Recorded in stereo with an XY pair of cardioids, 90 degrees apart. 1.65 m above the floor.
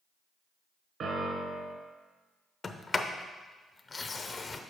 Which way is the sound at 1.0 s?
65° right.